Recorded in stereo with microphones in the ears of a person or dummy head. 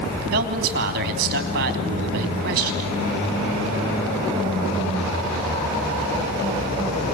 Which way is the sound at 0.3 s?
50° right (ahead or behind).